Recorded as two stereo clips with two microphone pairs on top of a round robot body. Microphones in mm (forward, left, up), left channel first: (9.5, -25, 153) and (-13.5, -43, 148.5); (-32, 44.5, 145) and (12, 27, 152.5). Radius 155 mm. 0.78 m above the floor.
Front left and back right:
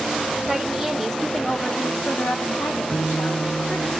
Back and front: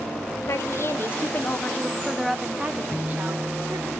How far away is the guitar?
About 5 m.